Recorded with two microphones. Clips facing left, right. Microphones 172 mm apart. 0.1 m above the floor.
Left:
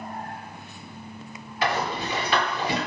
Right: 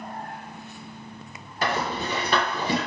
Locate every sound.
1.6 s a rattle: 40° right (ahead or behind), 1.7 m